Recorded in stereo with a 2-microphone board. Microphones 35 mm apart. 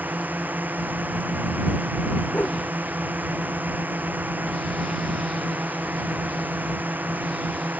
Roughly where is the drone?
Right.